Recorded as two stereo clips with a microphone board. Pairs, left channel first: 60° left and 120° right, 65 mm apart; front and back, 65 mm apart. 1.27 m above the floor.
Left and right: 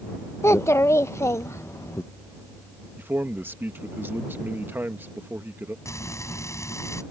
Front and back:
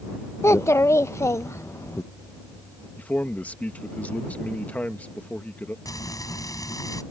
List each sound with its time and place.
0.4 s a child speaking: 30° left
3.0 s a man speaking: 65° right
5.8 s frying: 20° left